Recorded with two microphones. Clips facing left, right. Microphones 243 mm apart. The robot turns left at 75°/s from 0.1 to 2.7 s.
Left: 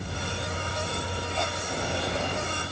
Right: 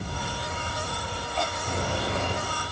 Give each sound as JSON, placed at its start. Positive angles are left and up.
{"t": 1.7, "sound": "a bird", "azimuth_deg": -75, "distance_m": 3.0}